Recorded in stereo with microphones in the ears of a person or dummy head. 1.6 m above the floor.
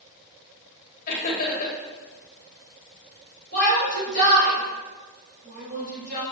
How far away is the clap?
No clap in this recording.